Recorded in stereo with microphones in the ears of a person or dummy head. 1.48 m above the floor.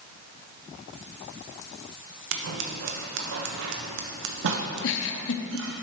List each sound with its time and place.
2.3 s scissors: 65° right (ahead or behind), 0.9 m
4.8 s a giggle: 65° left (ahead or behind), 0.7 m